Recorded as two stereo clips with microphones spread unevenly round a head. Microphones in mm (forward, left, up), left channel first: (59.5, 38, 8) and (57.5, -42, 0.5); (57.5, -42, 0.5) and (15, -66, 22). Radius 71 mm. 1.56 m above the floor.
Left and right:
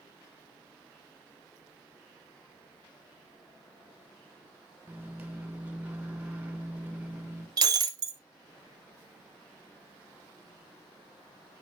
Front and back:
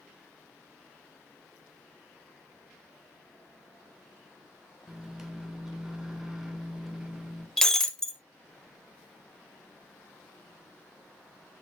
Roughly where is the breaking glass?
Right.